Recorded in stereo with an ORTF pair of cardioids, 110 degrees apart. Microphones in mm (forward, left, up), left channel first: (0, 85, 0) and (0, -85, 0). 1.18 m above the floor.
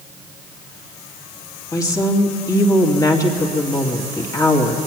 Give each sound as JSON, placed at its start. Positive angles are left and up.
{"t": 1.7, "sound": "a woman speaking", "azimuth_deg": 25, "distance_m": 2.0}